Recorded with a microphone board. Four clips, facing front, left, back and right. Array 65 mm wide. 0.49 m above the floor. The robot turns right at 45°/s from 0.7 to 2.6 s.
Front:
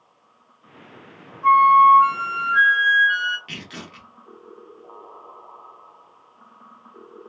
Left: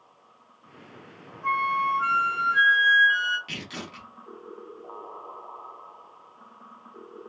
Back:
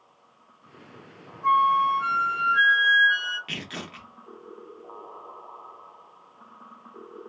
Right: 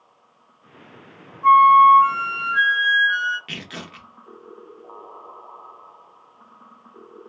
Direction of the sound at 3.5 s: 115° right.